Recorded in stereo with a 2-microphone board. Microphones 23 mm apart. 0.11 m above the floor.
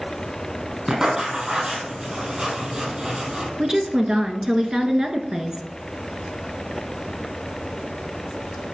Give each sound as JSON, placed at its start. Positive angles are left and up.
{"t": 0.9, "sound": "writing", "side_deg": -30, "distance_m": 3.5}
{"t": 3.6, "sound": "a woman speaking", "side_deg": -25, "distance_m": 1.2}